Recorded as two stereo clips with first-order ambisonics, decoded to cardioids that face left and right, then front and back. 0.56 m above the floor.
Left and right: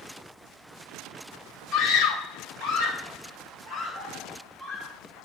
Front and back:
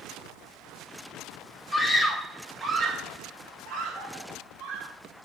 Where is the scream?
80° left, 1.4 m; by 4.9 s 140° left, 4 m.